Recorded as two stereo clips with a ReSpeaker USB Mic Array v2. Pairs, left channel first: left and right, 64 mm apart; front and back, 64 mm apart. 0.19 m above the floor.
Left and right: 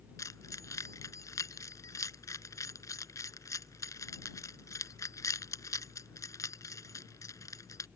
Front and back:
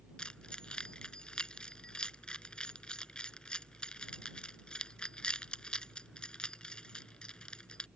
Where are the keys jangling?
75° left.